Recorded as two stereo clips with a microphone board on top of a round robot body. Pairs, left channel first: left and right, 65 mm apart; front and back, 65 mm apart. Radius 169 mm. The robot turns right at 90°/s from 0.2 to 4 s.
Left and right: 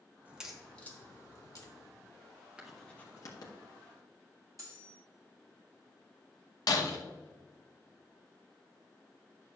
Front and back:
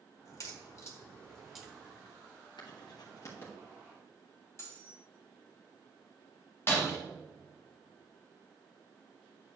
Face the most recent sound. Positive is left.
turn(degrees=60)